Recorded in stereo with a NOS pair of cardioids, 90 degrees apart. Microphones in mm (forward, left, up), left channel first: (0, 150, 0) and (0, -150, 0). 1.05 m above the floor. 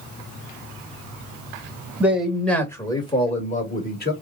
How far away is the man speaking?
About 1.6 m.